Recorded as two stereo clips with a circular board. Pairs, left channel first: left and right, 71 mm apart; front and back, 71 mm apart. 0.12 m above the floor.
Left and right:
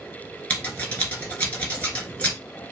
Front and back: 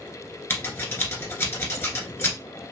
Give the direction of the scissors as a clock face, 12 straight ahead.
11 o'clock.